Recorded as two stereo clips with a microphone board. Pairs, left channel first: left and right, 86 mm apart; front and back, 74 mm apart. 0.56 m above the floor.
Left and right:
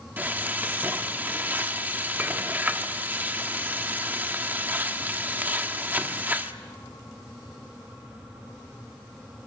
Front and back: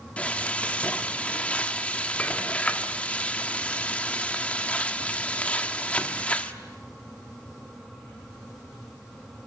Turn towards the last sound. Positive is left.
turn(degrees=-45)